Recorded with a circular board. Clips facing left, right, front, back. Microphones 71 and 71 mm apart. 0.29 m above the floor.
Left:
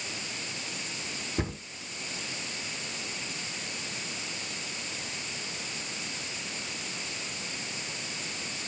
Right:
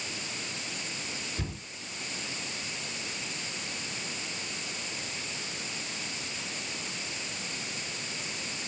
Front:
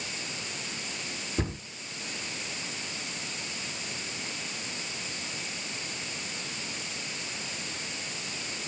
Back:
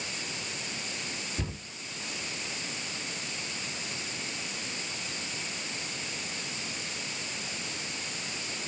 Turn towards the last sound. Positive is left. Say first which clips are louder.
# left 10 dB, front 8 dB
turn(degrees=50)